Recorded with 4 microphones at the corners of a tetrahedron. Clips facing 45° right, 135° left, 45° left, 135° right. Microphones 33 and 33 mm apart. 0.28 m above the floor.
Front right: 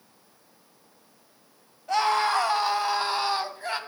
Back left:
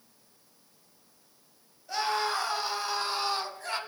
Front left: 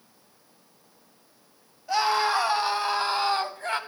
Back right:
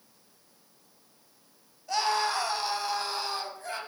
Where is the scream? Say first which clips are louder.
Front right 7 dB, front left 4 dB; 25° right, 1.7 m; by 3.8 s 20° left, 1.4 m.